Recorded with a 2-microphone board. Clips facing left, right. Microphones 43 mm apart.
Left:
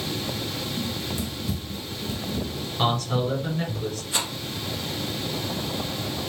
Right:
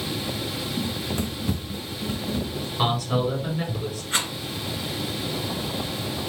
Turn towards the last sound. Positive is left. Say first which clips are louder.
# right 4 dB
turn(degrees=-50)  # may be behind; listen again after turning